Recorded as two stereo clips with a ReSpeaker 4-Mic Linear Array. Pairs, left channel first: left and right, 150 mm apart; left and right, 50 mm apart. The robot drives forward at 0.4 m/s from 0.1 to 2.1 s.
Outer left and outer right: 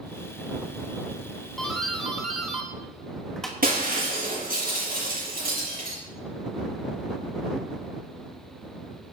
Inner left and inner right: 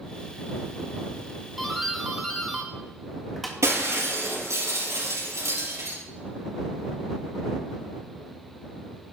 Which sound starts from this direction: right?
Breaking glass, at 3.6 s.